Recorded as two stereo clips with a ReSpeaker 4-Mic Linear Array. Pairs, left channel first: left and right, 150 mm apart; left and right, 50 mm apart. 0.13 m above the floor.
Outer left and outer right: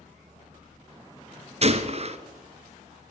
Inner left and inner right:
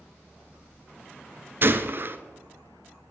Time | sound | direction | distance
1.6 | a gunshot | 50° right (ahead or behind) | 0.8 m